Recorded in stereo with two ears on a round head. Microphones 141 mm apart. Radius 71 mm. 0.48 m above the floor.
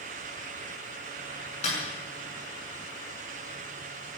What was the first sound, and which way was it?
A snare drum, 40° left (ahead or behind).